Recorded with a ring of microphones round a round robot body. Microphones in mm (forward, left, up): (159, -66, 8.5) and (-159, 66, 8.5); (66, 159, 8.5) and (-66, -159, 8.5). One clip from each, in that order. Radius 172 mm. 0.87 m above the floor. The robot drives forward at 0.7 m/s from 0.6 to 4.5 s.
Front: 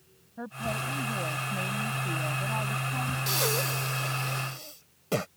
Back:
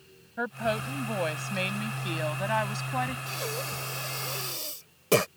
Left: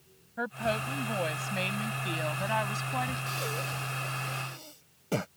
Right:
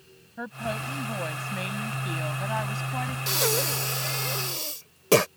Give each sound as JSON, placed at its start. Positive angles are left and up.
{"t": 0.4, "sound": "a woman speaking", "azimuth_deg": 135}
{"t": 3.3, "sound": "breathing", "azimuth_deg": -70}